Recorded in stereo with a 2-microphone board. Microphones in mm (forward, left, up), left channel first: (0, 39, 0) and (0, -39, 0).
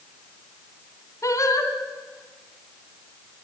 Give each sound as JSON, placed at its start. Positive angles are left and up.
{"t": 1.2, "sound": "singing", "side_deg": 45, "distance_m": 3.0}